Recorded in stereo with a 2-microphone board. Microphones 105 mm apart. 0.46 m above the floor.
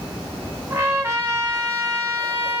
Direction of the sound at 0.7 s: 25° right (ahead or behind).